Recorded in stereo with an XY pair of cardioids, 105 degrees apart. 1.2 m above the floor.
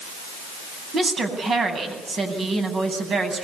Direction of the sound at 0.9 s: 45° right.